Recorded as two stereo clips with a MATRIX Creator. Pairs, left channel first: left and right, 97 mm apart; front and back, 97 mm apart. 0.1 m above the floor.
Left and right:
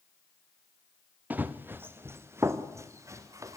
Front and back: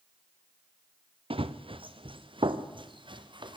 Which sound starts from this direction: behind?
Running footsteps, at 1.3 s.